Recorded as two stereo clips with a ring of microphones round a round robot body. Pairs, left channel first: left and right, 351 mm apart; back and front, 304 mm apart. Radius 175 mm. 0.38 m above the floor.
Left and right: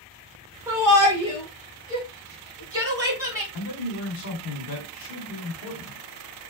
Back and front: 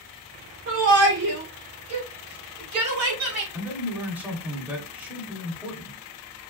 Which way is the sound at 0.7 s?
15° right.